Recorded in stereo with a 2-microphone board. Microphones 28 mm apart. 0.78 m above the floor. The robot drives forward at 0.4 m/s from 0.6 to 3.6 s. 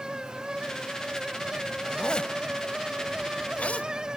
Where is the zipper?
35° left (ahead or behind), 1.6 m; by 3.9 s 55° left (ahead or behind), 1.1 m.